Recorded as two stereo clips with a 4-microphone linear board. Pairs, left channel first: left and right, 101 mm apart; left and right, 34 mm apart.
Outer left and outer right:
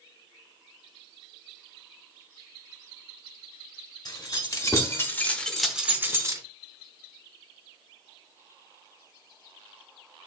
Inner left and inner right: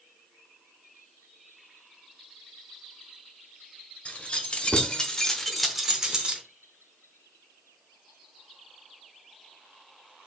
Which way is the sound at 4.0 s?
45° left (ahead or behind).